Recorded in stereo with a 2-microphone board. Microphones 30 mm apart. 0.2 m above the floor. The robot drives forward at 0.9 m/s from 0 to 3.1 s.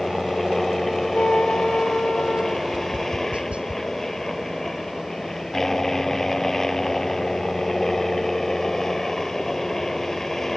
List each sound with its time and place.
0.0 s a helicopter: 10° left (ahead or behind); by 10.6 s 15° left (ahead or behind)
1.1 s a trumpet: 50° left (ahead or behind); by 2.6 s 65° left (ahead or behind)
2.7 s tapping: 35° right (ahead or behind)